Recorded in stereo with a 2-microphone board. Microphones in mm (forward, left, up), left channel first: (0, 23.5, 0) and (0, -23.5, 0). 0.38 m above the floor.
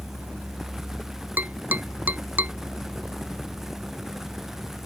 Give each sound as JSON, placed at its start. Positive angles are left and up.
{"t": 1.4, "sound": "tapping", "side_deg": -35}